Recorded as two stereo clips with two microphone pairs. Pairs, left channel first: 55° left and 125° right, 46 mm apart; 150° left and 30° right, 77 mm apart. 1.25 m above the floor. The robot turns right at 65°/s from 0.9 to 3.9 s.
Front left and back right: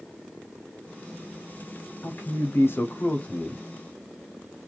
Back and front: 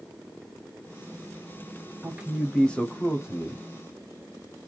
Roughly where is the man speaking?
Ahead left.